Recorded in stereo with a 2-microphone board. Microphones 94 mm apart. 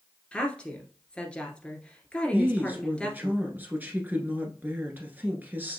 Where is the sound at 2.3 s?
20° right (ahead or behind), 1.3 m.